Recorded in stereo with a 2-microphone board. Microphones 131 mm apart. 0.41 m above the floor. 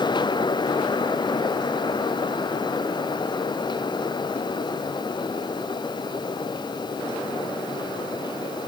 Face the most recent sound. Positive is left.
No sound to turn to.